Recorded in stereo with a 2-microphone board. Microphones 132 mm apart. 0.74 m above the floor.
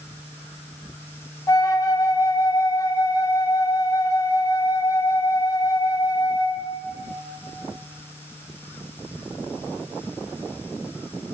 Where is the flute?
25° left (ahead or behind), 0.6 m.